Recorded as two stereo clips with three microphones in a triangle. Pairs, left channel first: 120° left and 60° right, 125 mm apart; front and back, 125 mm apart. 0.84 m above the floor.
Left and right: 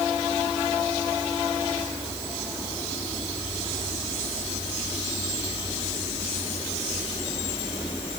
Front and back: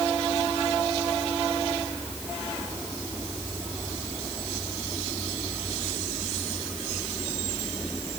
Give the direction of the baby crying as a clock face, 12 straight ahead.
I don't hear a baby crying.